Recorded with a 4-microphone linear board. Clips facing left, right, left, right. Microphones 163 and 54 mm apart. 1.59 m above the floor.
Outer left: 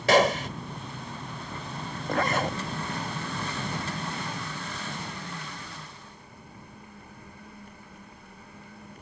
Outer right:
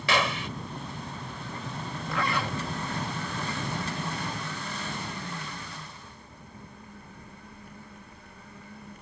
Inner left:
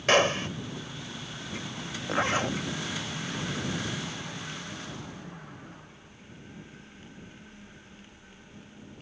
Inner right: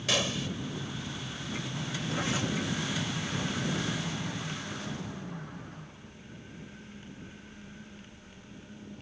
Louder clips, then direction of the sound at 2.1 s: Outer left 4 dB, inner left 6 dB; 40° left (ahead or behind).